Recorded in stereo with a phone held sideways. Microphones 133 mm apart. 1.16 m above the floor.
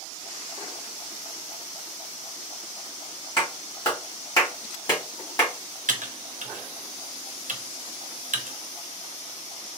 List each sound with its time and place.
3.4 s a clap: 35° left (ahead or behind), 2 m
5.9 s typing on a keyboard: 75° right (ahead or behind), 0.7 m